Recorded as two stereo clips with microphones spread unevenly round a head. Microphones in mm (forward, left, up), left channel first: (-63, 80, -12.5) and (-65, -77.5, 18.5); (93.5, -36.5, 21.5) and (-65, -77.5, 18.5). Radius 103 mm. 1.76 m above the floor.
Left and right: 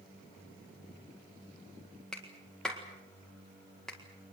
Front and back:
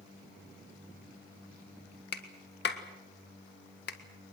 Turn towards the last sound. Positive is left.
turn(degrees=0)